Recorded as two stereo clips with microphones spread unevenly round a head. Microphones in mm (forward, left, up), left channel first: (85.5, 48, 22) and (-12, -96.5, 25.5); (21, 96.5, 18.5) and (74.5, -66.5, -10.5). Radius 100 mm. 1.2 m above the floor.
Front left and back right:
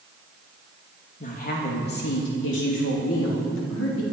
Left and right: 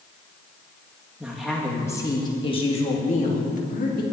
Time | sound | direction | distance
1.2 | a woman speaking | 10° left | 2.0 m